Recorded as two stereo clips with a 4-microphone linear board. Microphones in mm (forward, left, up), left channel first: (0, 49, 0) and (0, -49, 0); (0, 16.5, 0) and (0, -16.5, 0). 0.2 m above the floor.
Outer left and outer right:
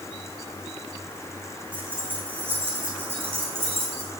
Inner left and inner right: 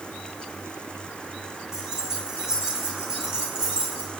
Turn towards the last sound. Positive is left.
turn(degrees=-25)  # may be behind; listen again after turning